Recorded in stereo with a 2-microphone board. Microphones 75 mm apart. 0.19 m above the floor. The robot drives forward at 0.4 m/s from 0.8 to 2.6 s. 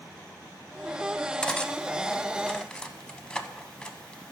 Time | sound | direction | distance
1.4 | cutlery clinking | 15° left (ahead or behind) | 0.6 m